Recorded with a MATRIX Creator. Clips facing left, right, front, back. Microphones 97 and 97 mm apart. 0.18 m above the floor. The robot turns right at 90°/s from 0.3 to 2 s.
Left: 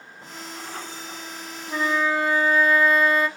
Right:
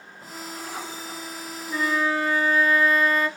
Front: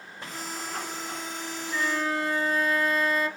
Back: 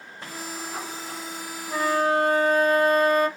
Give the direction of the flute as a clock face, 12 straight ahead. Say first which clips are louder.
Left 1 dB, back 6 dB; 8 o'clock.